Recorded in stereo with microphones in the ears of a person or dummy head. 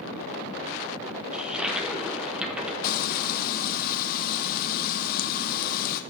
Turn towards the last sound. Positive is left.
turn(degrees=50)  # may be behind; listen again after turning